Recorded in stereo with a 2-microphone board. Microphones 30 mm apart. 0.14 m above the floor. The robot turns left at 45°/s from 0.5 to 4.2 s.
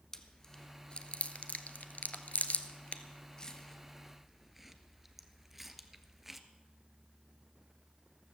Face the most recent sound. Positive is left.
turn(degrees=-5)  # may be behind; listen again after turning